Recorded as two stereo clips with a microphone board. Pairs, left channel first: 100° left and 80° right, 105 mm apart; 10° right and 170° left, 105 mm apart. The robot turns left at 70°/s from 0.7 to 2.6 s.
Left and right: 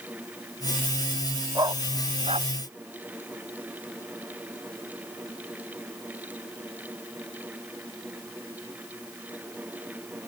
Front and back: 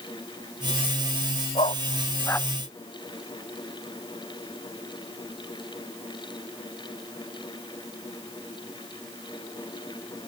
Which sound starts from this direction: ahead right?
A dog barking, at 1.6 s.